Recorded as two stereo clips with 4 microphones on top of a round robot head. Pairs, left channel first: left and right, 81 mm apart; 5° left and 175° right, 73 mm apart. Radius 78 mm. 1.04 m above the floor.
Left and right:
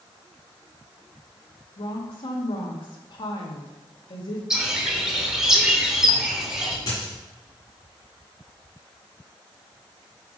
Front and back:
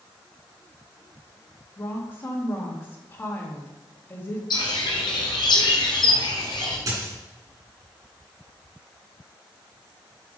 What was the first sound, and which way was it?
A woman speaking, 70° left.